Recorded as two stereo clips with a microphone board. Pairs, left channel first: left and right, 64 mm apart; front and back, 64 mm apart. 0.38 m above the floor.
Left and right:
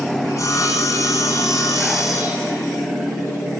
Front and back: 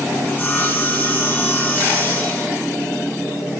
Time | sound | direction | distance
0.2 | sawing | 65° left | 2 m